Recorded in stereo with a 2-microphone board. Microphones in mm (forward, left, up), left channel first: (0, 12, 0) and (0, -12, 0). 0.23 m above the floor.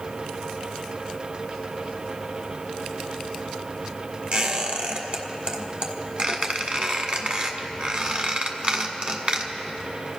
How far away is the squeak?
About 1.3 m.